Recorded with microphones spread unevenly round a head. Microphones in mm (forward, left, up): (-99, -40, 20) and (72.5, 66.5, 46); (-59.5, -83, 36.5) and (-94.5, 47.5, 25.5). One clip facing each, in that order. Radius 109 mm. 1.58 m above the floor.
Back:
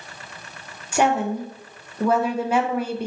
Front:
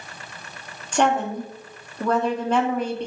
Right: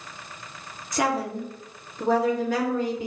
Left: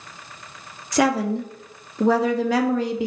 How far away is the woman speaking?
About 0.6 m.